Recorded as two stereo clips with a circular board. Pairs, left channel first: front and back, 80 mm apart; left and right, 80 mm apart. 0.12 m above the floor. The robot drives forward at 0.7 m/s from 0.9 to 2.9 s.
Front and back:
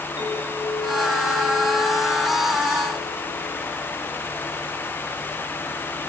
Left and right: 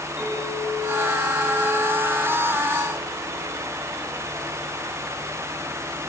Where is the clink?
30° right, 9 m; by 3.5 s 35° right, 7.5 m.